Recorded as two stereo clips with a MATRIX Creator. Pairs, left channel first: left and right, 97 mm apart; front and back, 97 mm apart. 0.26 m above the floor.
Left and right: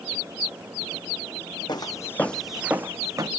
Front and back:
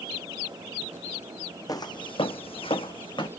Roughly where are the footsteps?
Ahead left.